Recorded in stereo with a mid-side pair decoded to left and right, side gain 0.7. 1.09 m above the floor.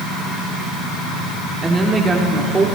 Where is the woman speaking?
20° right, 2 m.